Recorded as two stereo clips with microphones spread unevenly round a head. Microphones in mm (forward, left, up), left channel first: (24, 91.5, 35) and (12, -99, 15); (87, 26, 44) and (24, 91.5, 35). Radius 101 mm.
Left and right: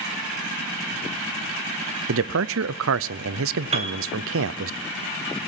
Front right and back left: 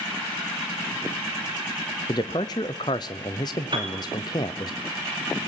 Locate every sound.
2.1 s a man speaking: 105° right, 0.6 m
3.7 s a piano: 155° right, 2.5 m